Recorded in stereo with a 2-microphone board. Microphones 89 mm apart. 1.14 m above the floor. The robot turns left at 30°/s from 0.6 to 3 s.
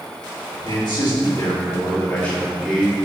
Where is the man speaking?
65° left, 2.5 m; by 3.0 s 5° right, 2.5 m.